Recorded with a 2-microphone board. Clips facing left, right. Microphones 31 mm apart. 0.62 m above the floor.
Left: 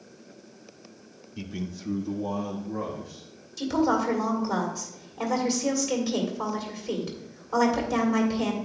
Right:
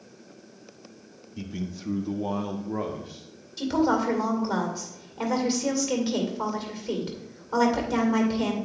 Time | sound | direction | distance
1.4 | a man speaking | 15° left (ahead or behind) | 0.6 m
3.6 | a woman speaking | 20° right (ahead or behind) | 2 m